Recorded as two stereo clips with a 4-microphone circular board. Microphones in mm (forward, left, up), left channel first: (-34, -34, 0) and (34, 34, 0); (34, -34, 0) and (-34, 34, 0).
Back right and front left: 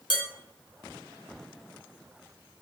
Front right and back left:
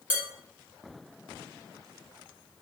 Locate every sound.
0.1 s dishes clattering: 155° right, 1.1 m